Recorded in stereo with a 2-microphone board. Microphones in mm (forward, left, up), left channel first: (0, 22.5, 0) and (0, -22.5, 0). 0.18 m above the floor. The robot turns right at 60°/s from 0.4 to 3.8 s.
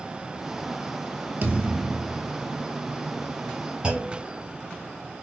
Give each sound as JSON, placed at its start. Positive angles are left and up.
{"t": 1.4, "sound": "a thud", "azimuth_deg": -40, "distance_m": 0.9}
{"t": 3.8, "sound": "a clunk", "side_deg": -15, "distance_m": 1.3}